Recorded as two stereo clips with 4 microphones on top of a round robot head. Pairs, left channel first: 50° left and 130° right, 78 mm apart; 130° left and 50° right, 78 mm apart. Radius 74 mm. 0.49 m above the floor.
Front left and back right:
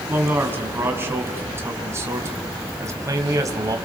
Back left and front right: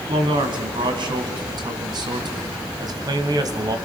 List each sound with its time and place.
0.1 s a man speaking: 70° right, 4.5 m; by 3.8 s 90° right, 3 m